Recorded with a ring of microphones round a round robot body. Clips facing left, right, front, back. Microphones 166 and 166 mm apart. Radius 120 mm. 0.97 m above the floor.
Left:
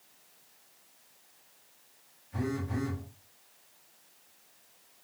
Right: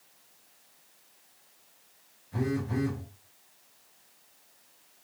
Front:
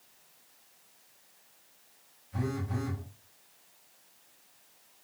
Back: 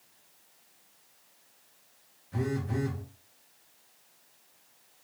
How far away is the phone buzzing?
About 0.8 m.